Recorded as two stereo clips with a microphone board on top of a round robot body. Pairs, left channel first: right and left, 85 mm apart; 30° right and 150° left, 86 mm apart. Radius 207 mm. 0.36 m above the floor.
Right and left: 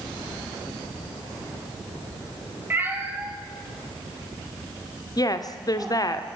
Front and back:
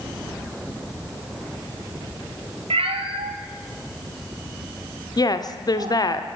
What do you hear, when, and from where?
2.7 s a cat meowing: 160° left, 1.4 m
5.2 s a woman speaking: 60° right, 2.0 m